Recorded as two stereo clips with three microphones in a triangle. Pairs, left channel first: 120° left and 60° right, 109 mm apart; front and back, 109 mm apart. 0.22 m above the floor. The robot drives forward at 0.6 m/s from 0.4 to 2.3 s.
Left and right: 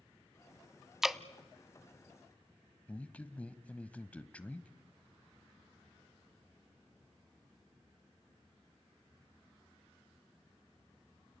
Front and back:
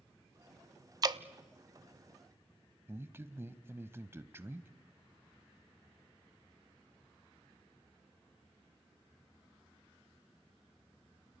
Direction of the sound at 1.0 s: 140° right.